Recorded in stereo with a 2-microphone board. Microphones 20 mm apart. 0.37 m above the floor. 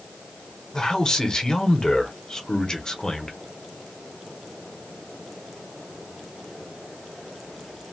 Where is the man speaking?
35° left (ahead or behind), 0.9 m.